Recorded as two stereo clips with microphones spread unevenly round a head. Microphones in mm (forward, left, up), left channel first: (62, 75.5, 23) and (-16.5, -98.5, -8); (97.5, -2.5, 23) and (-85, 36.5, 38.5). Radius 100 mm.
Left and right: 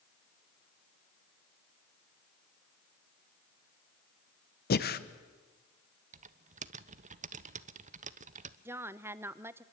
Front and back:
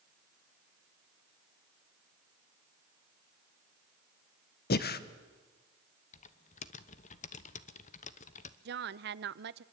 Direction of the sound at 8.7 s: 160° left.